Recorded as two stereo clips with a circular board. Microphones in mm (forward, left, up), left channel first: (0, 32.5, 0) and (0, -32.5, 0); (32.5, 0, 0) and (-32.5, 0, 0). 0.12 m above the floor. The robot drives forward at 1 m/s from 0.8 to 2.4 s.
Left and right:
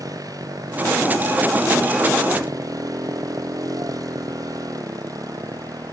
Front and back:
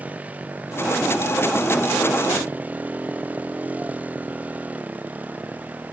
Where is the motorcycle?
115° right; by 5.9 s 110° right.